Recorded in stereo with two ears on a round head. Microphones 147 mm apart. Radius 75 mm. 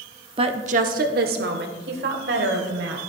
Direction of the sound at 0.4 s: 30° right (ahead or behind).